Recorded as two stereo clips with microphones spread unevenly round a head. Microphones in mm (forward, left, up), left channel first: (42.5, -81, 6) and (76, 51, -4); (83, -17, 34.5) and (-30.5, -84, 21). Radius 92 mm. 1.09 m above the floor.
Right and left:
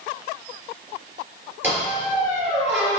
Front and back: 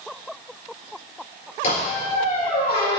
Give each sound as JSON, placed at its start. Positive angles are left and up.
{"t": 1.6, "sound": "a squeak", "azimuth_deg": 0, "distance_m": 4.0}